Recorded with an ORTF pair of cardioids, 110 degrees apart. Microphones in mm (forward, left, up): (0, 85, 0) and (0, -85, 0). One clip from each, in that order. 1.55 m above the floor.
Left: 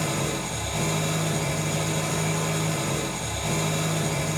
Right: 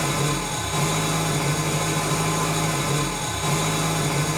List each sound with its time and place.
0.0 s an engine running: 50° right, 0.8 m